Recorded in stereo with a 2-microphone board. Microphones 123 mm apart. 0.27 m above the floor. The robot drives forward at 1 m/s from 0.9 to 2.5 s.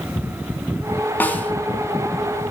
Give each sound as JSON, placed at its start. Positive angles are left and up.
{"t": 1.2, "sound": "a snare drum", "side_deg": 15, "distance_m": 1.4}